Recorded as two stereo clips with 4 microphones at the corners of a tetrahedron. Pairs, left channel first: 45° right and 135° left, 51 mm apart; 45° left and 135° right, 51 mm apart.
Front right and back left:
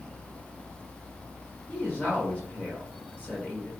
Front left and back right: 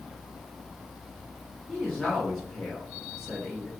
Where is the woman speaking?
30° right, 1.3 m.